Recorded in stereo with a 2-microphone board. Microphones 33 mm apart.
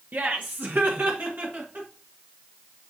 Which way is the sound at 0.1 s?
60° right (ahead or behind).